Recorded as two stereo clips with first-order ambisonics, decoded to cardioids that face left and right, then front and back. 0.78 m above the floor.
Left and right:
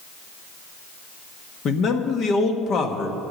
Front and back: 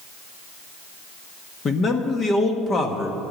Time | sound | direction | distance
1.6 | a man speaking | 55° left | 1.3 m